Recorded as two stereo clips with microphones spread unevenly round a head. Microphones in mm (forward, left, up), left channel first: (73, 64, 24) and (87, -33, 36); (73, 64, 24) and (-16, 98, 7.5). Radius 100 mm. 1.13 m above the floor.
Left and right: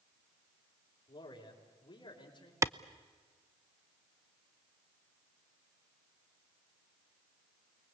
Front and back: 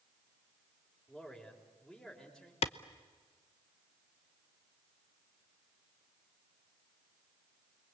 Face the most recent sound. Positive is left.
turn(degrees=-15)